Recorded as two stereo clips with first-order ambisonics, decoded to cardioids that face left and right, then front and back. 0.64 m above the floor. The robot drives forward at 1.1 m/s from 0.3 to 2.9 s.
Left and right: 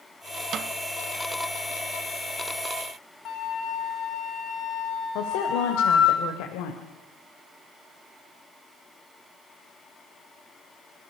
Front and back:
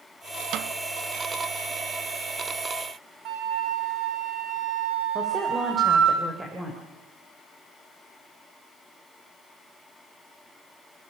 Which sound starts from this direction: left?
A woman speaking, at 5.2 s.